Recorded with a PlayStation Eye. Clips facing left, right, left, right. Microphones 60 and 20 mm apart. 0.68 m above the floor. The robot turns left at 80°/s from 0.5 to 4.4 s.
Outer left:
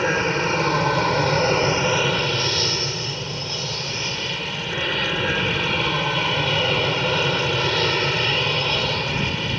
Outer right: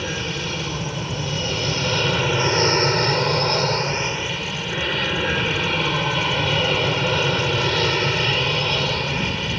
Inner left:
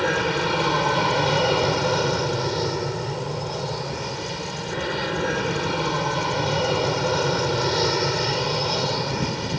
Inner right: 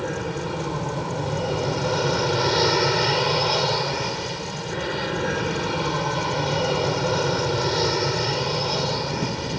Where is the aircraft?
130° left; by 9.6 s straight behind.